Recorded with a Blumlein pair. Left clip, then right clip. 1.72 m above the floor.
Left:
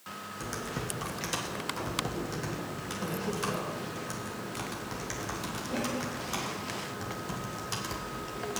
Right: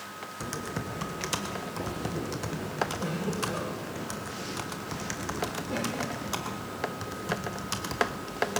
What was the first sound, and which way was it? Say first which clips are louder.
Typing on a keyboard: right 1 dB; 10° right.